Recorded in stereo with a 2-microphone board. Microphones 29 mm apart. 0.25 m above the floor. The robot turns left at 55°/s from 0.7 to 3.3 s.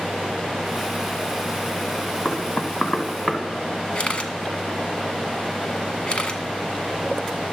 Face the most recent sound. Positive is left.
turn(degrees=40)  # may be behind; listen again after turning